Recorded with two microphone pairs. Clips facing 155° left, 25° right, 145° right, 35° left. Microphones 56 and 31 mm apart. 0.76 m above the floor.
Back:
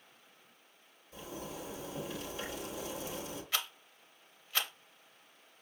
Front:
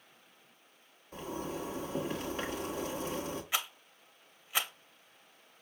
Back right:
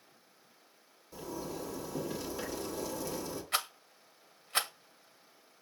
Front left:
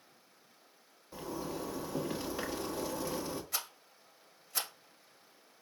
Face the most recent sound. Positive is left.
turn(degrees=-100)